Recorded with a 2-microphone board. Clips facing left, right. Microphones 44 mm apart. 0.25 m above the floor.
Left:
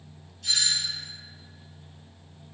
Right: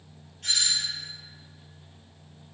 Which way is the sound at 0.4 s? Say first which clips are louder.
Even; 55° right (ahead or behind).